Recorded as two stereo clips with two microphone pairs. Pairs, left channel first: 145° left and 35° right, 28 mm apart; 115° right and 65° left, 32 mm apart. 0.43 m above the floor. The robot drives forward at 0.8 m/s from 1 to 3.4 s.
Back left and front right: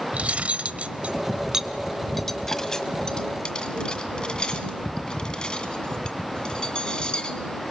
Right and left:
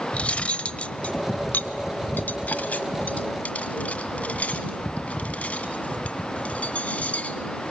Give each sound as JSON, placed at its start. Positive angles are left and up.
{"t": 0.1, "sound": "cutlery clinking", "azimuth_deg": -70, "distance_m": 0.9}